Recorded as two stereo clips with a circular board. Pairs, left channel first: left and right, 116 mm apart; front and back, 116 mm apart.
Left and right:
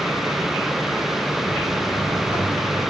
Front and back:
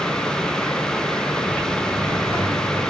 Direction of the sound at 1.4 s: 35° left.